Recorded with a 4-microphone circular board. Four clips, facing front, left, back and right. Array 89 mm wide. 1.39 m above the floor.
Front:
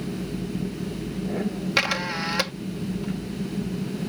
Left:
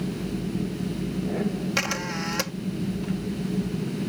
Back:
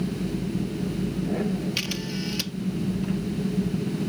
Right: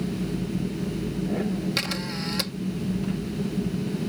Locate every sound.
1.8 s a camera shutter: 20° left